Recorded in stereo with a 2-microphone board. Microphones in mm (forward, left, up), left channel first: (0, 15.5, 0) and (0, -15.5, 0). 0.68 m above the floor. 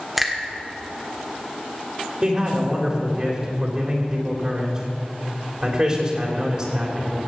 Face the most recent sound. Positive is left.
turn(degrees=-30)  # may be behind; listen again after turning